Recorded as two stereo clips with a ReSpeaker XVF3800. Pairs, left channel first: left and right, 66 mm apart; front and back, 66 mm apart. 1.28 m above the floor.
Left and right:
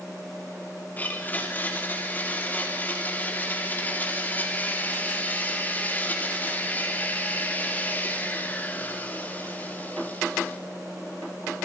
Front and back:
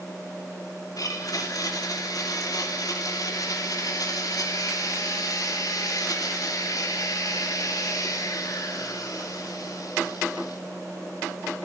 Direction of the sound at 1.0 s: 30° left.